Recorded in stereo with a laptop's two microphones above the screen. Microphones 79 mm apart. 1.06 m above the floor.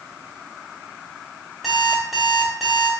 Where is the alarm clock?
Centre (ahead or behind), 1.7 m.